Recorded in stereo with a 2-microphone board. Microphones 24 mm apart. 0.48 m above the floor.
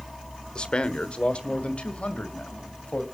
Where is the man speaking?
45° left (ahead or behind), 1.2 m; by 3.0 s 70° left (ahead or behind), 2.5 m.